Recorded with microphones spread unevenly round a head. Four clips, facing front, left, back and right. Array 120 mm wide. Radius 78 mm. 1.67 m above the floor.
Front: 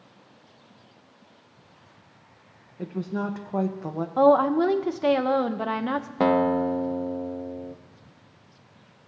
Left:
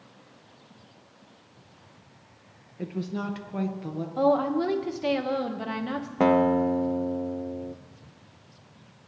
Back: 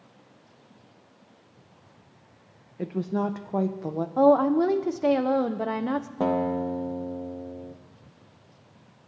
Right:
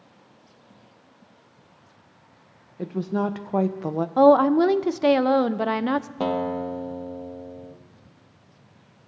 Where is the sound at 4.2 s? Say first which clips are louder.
Right 8 dB, front 1 dB; 35° right, 0.6 m.